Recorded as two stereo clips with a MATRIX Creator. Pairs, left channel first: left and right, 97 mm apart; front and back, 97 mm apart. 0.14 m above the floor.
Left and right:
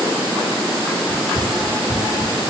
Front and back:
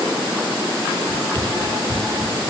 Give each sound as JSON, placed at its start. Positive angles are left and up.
{"t": 1.1, "sound": "running footsteps", "azimuth_deg": 105, "distance_m": 3.5}